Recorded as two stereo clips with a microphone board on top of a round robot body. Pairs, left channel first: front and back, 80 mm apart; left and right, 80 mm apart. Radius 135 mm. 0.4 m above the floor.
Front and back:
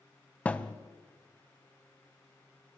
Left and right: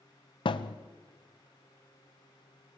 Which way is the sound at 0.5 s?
75° left.